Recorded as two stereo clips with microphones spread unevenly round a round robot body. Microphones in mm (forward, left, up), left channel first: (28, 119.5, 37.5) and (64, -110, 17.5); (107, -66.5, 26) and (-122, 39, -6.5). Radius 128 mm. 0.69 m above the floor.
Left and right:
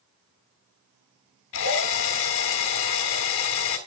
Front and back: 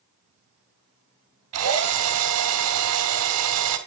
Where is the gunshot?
I don't hear a gunshot.